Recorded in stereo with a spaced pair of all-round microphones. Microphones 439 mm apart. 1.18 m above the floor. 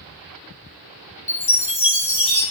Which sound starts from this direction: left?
A chime, at 1.3 s.